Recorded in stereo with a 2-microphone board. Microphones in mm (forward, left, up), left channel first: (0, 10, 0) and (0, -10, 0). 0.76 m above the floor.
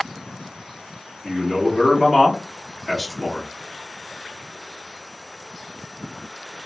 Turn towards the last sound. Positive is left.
turn(degrees=-15)  # may be behind; listen again after turning